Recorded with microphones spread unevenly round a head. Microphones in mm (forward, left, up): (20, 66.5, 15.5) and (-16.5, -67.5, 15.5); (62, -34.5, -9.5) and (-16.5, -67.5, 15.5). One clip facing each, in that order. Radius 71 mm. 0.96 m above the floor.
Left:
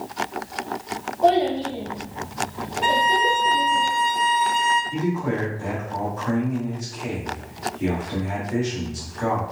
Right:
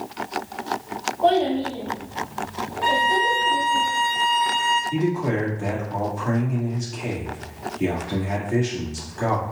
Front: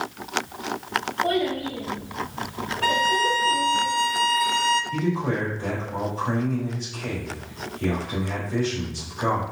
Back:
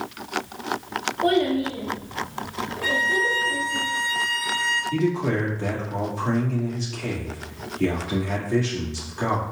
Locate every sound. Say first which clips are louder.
1.2 s a child speaking: left 1 dB, back 6 dB; 160° left, 0.9 m; by 3.8 s 145° left, 2.5 m
2.8 s a violin: left 1 dB, front 3 dB; straight ahead, 0.6 m
4.9 s a man speaking: right 2 dB, back 2 dB; 170° right, 1.8 m